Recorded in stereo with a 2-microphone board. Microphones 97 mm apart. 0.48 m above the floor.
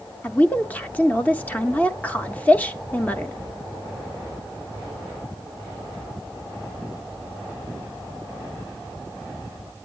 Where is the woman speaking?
15° left (ahead or behind), 0.7 m.